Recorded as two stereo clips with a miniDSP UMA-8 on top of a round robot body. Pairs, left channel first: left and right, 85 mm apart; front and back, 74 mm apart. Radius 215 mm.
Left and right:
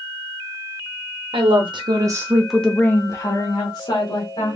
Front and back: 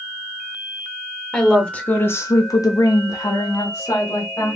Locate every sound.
1.3 s a woman speaking: 85° right, 1.0 m; by 4.5 s 55° left, 1.7 m